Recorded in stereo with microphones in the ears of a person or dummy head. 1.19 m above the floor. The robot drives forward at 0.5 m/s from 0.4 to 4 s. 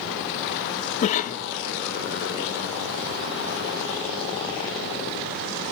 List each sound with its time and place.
1.0 s a cough: 45° left (ahead or behind), 1.3 m; by 1.4 s 55° left (ahead or behind), 1.1 m